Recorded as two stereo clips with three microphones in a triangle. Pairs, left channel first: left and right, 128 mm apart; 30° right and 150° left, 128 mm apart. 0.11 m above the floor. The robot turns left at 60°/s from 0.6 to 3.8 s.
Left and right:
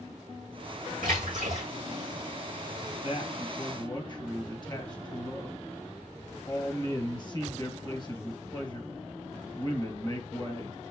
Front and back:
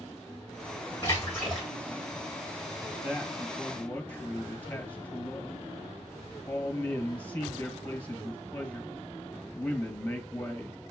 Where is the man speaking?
90° left, 2 m; by 10.8 s 45° left, 2 m.